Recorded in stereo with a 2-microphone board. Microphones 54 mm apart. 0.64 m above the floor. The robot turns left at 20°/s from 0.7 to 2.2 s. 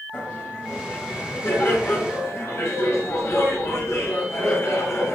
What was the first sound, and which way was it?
Laughter, 155° left.